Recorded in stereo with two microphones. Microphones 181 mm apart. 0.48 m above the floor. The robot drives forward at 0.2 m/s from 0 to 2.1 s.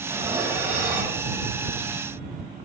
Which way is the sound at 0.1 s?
15° right (ahead or behind).